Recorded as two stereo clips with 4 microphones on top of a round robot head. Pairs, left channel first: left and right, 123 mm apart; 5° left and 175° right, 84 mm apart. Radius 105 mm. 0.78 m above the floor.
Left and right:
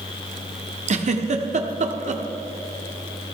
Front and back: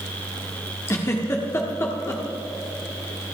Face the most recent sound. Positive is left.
turn(degrees=-60)